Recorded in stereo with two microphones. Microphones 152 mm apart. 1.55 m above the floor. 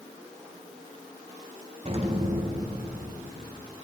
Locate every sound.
1.9 s an explosion: 40° right (ahead or behind), 0.8 m